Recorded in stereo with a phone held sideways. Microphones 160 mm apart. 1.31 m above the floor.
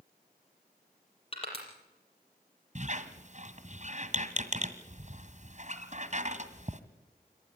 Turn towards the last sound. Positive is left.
turn(degrees=-45)  # may be behind; listen again after turning